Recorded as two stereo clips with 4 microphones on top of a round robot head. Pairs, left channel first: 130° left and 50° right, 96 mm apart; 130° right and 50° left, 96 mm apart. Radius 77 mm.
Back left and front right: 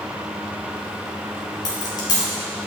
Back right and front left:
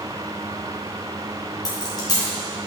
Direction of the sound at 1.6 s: Straight behind.